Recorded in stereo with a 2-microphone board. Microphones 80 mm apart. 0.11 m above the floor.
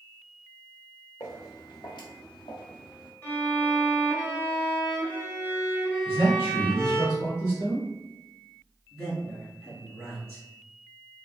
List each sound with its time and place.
1.2 s footsteps: 50° left (ahead or behind), 1.0 m; by 3.1 s 85° left, 1.5 m
3.2 s a violin: 25° left (ahead or behind), 1.0 m
6.0 s a man speaking: 35° left (ahead or behind), 1.4 m
8.9 s a man speaking: 10° left (ahead or behind), 1.7 m